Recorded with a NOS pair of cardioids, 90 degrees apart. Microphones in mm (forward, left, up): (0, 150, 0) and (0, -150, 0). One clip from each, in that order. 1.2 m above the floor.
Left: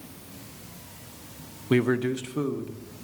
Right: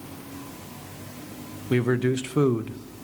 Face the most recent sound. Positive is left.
turn(degrees=-60)